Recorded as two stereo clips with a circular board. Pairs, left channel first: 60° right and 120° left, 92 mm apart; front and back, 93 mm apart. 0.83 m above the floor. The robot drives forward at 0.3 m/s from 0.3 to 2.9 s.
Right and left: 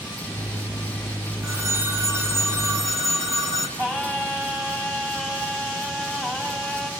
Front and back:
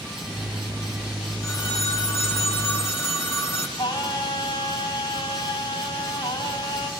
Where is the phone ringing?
55° left, 3 m; by 3.7 s 65° left, 2.5 m.